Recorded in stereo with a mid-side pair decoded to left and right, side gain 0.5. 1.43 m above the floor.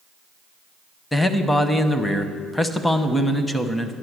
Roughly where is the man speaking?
Ahead.